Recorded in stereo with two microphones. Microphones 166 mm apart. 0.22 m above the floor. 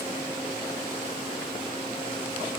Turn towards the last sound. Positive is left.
No sound to turn to.